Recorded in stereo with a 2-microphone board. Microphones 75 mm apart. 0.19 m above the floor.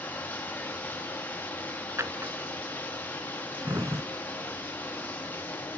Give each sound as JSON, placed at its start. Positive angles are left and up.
{"t": 0.0, "sound": "running water", "side_deg": 25, "distance_m": 1.7}
{"t": 2.0, "sound": "a drawer", "side_deg": -40, "distance_m": 0.7}